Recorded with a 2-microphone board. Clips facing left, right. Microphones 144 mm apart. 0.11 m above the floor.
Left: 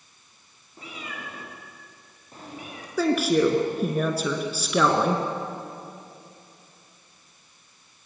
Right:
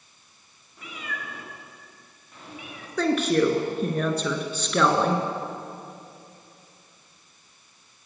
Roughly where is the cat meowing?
Left.